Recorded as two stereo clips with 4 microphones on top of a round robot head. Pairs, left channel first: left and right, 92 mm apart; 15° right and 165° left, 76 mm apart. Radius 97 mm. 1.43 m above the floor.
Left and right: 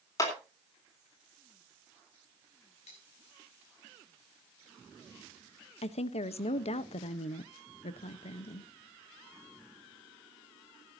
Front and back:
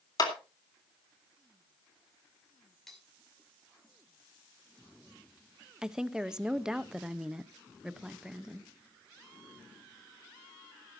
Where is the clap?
30° left, 3.5 m.